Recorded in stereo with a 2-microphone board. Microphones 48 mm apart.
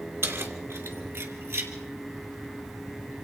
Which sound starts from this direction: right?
Keys jangling, at 0.2 s.